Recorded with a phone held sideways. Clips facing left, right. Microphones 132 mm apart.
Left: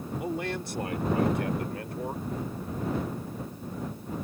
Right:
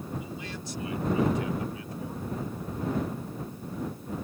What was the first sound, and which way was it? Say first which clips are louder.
A man speaking: left 7 dB; 70° left (ahead or behind).